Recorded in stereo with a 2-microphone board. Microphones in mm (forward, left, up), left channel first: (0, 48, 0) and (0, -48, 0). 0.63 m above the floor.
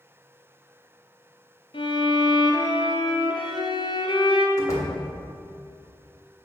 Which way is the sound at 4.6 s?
35° left (ahead or behind).